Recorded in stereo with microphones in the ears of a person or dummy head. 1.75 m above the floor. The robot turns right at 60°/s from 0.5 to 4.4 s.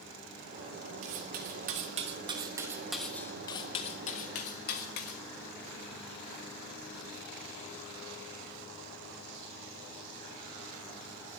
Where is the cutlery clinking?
40° right (ahead or behind), 1.3 m; by 5.2 s 45° left (ahead or behind), 1.3 m.